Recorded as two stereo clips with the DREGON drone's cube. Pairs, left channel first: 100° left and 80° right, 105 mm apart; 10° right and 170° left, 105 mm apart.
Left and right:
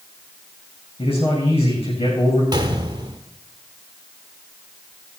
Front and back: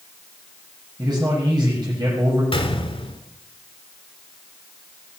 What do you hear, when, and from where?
1.0 s a man speaking: 125° left, 7 m
2.5 s a gunshot: 35° right, 1.4 m